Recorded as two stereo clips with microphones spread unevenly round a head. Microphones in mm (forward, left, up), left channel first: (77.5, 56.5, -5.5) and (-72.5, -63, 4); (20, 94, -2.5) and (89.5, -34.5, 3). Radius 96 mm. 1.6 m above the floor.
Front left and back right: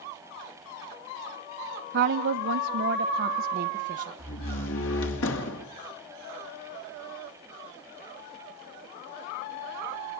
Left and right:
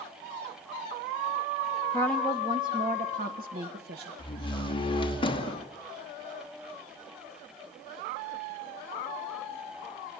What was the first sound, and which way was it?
A woman speaking, 170° right.